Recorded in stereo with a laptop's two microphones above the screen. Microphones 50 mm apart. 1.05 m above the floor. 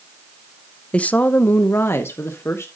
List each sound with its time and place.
0.9 s a woman speaking: 20° left (ahead or behind), 0.5 m; by 2.7 s 65° left (ahead or behind), 1.4 m